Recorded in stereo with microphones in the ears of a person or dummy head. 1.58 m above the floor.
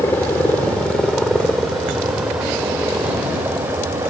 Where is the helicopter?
10° left (ahead or behind); by 4.1 s 15° right (ahead or behind).